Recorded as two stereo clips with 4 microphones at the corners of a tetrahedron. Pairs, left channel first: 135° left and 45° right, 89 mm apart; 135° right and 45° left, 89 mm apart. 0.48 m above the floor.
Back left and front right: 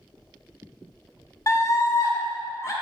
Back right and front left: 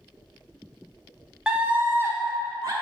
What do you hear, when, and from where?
1.5 s a scream: 120° left, 0.9 m; by 2.7 s 85° left, 1.4 m